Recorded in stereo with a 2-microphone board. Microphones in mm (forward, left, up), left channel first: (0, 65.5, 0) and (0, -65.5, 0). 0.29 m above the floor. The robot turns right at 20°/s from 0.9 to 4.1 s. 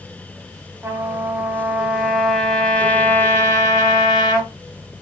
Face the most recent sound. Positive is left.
turn(degrees=40)